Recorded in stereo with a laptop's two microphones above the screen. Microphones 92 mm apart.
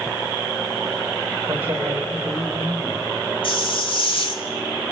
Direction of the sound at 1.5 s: 20° right (ahead or behind).